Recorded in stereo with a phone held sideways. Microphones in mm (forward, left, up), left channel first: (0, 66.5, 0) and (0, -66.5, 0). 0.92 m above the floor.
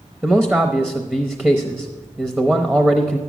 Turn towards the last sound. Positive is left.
turn(degrees=-10)  # may be behind; listen again after turning